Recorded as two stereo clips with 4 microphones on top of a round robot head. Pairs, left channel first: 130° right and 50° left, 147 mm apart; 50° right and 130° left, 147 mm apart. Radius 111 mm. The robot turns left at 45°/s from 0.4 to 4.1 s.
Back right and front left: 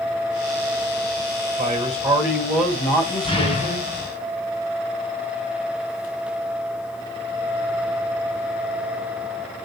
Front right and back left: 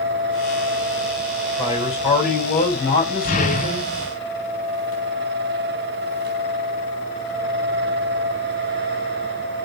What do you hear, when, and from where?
1.6 s a man speaking: 10° left, 5.5 m; by 3.9 s 95° right, 5.5 m
3.2 s an explosion: 70° right, 5.5 m; by 4.2 s 110° right, 5.5 m